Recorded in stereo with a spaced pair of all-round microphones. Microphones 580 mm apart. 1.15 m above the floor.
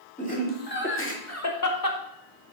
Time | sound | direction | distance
0.2 | laughter | 10° left (ahead or behind) | 2.5 m